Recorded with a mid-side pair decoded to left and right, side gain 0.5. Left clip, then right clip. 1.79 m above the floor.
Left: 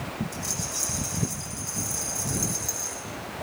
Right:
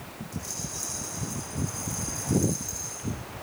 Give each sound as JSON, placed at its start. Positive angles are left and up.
{"t": 0.3, "sound": "a rattle", "azimuth_deg": 40, "distance_m": 6.5}